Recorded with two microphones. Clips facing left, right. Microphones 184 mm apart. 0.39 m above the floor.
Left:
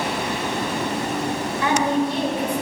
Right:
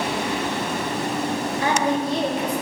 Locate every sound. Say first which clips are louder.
1.6 s a woman speaking: left 3 dB; 35° right (ahead or behind), 1.3 m